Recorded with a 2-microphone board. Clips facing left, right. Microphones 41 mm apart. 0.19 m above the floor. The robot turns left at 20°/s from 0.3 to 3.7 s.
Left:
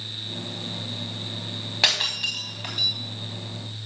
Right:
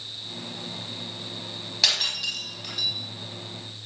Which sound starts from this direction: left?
Breaking glass, at 1.8 s.